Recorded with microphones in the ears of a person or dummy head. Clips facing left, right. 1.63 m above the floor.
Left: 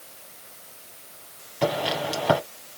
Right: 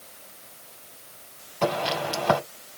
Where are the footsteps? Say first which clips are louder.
Left 1 dB; 10° left (ahead or behind), 2.5 m.